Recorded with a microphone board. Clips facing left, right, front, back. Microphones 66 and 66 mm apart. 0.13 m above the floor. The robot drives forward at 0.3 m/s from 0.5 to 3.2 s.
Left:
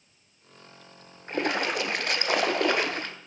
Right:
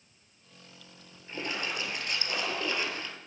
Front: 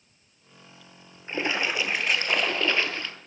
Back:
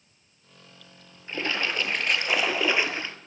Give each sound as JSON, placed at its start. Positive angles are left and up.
{"t": 1.3, "sound": "a splash", "azimuth_deg": 65, "distance_m": 0.8}